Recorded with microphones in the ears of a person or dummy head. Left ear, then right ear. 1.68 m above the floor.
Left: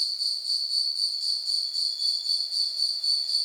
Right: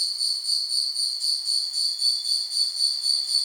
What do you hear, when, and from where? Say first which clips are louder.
0.0 s an insect: right 2 dB; 45° right (ahead or behind), 1.2 m